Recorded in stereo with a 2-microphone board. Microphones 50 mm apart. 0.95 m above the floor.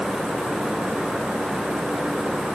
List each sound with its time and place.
Only background noise.